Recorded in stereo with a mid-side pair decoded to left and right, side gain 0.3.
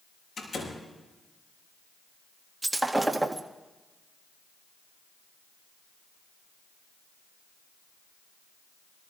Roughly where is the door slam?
Ahead left.